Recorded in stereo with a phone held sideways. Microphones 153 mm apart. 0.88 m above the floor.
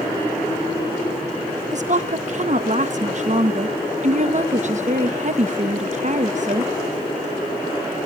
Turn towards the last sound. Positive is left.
turn(degrees=-50)  # may be behind; listen again after turning